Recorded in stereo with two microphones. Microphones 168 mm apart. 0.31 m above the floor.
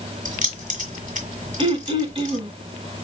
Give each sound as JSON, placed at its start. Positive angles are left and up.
{"t": 0.2, "sound": "keys jangling", "side_deg": -55, "distance_m": 1.7}
{"t": 1.6, "sound": "throat clearing", "side_deg": -35, "distance_m": 0.8}